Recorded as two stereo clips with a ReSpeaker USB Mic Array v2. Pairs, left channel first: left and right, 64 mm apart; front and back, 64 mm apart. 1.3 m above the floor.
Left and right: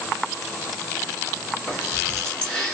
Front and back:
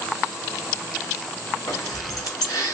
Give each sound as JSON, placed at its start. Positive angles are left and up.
{"t": 1.7, "sound": "keys jangling", "azimuth_deg": 15, "distance_m": 1.7}